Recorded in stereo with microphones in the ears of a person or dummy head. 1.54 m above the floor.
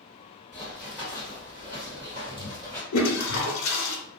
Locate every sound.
0.5 s running footsteps: centre (ahead or behind), 1.9 m; by 2.8 s 35° right (ahead or behind), 1.8 m
2.9 s a toilet flushing: 80° left, 0.7 m